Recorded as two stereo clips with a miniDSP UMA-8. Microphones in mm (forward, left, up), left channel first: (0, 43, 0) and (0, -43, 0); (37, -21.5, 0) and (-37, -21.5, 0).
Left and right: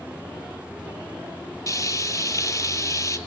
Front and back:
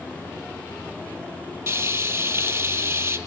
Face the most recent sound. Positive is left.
turn(degrees=135)